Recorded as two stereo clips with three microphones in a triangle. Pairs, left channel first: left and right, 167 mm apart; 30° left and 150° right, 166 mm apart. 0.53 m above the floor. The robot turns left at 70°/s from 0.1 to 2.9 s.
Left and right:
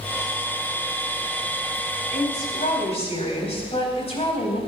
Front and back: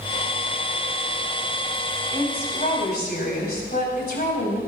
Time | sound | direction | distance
2.1 | a woman speaking | 95° left | 3.5 m